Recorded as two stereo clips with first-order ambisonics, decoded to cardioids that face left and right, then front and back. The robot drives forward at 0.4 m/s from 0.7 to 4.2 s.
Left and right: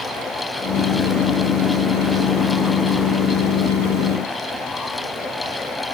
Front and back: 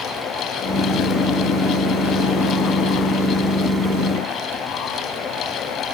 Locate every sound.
Only background noise.